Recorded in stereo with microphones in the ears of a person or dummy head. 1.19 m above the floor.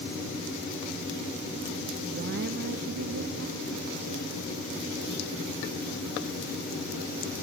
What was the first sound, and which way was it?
A woman speaking, 45° right (ahead or behind).